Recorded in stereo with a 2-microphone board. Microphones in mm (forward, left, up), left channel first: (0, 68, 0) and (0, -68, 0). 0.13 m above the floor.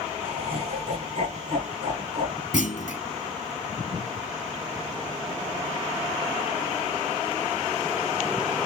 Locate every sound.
0.2 s laughter: 45° right (ahead or behind), 6.5 m
2.5 s a clunk: 65° left (ahead or behind), 0.7 m